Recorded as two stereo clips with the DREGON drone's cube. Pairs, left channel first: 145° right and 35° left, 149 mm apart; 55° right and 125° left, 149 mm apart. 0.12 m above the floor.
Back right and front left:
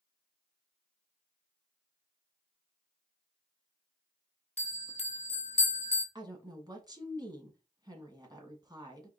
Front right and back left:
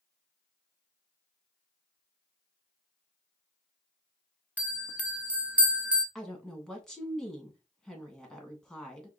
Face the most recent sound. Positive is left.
turn(degrees=25)